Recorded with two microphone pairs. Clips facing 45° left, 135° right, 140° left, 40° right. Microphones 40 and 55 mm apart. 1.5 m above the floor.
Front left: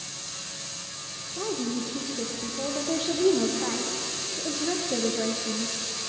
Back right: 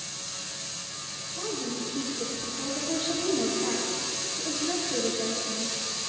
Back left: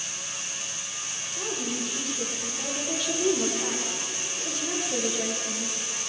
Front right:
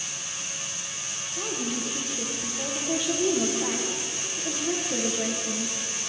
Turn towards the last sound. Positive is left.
turn(degrees=40)